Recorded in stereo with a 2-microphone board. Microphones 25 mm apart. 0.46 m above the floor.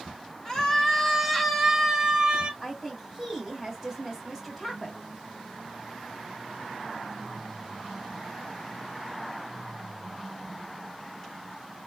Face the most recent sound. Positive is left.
turn(degrees=5)  # may be behind; listen again after turning